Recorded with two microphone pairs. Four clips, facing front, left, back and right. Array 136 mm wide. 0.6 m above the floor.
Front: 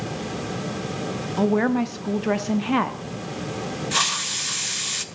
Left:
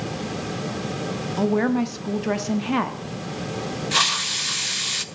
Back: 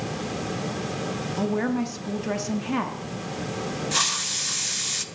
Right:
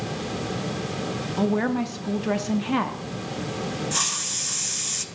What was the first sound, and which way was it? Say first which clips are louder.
A woman speaking: left 3 dB, front 5 dB; 15° left.